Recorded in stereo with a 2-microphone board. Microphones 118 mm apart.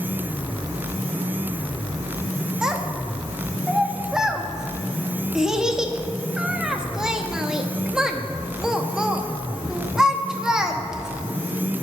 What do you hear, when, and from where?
2.6 s a child speaking: 5° right (ahead or behind), 0.9 m